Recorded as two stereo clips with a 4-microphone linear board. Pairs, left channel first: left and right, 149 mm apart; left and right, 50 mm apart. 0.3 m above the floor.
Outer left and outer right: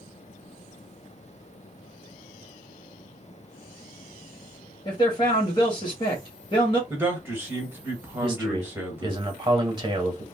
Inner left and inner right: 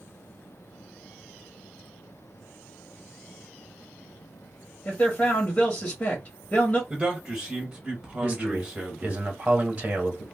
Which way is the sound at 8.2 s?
30° right (ahead or behind).